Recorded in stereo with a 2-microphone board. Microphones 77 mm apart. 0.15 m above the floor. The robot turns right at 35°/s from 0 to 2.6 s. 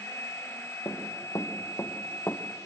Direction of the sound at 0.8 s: 55° left (ahead or behind).